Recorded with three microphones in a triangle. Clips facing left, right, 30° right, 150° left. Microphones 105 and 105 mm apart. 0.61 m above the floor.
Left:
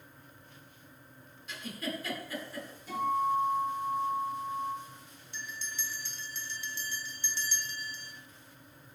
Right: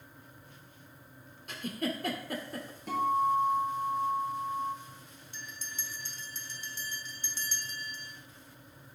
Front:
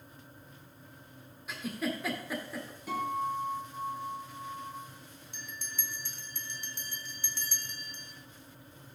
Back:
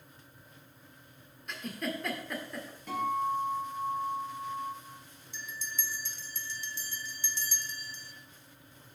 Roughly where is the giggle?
Behind right.